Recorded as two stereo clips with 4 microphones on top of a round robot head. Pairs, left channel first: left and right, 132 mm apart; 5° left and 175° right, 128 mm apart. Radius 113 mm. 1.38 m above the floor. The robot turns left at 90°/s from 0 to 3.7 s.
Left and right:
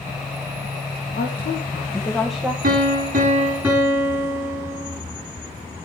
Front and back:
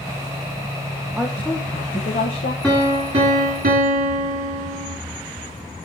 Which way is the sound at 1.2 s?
100° left.